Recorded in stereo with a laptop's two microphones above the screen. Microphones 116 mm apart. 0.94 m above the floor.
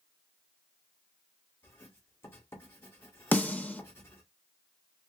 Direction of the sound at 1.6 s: 25° left (ahead or behind).